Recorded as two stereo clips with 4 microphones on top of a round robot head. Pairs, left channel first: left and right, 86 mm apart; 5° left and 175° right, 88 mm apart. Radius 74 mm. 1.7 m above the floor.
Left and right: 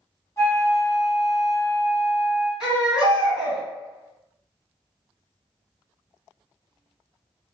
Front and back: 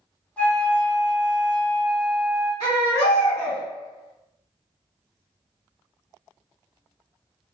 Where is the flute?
60° left, 0.8 m.